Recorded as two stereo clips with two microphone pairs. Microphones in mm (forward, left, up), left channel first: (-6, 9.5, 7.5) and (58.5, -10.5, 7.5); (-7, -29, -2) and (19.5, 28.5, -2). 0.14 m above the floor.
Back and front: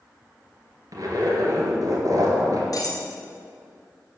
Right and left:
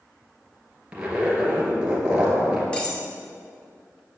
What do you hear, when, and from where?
0.9 s a zipper: 10° right, 2.0 m
2.7 s cutlery clinking: 175° left, 1.6 m